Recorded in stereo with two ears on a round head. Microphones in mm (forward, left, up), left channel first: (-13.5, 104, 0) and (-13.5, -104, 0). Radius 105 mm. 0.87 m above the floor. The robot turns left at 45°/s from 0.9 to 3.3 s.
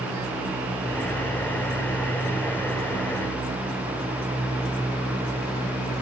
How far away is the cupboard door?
No cupboard door in this recording.